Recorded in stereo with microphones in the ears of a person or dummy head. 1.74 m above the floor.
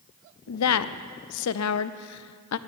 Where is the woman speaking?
80° left, 0.5 m.